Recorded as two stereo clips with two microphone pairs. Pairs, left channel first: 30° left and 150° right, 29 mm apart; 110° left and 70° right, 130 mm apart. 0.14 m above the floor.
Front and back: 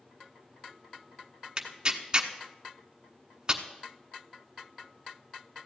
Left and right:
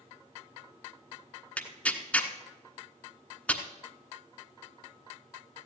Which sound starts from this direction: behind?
Tearing paper, at 1.6 s.